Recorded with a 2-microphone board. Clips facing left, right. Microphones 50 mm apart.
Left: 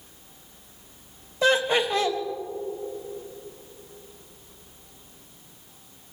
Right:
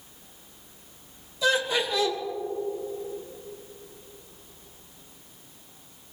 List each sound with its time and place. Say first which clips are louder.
1.4 s laughter: left 3 dB; 50° left (ahead or behind), 1.9 m